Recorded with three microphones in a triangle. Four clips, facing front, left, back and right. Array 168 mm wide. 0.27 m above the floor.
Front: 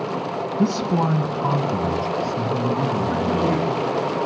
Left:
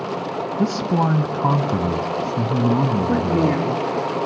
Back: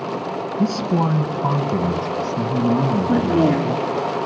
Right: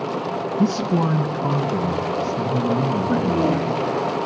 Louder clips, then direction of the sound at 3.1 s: Right 1 dB, back 7 dB; 140° left.